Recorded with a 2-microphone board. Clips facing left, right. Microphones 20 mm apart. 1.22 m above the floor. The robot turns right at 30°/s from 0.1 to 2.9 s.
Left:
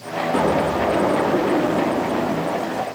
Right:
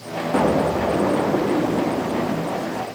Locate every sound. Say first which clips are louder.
0.3 s an explosion: right 1 dB; 5° right, 1.2 m; by 2.9 s 70° left, 1.2 m